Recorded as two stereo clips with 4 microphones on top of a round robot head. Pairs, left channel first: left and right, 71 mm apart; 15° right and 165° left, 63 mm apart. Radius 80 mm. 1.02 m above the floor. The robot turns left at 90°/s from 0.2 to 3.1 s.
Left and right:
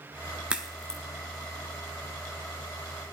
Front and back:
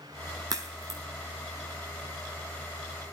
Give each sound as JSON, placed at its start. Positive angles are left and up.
{"t": 0.5, "sound": "a crack", "azimuth_deg": -160, "distance_m": 0.6}